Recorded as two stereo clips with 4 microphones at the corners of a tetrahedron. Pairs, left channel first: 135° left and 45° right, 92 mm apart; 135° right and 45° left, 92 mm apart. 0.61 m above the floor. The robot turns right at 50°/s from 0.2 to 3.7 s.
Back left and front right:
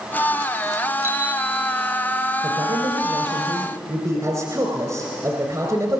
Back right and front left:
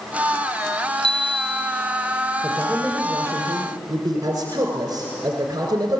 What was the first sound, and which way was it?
A bicycle bell, 20° left.